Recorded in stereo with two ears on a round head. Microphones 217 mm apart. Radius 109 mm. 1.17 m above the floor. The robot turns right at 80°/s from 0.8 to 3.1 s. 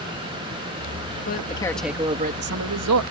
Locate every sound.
1.3 s a man speaking: 135° left; by 3.0 s 85° right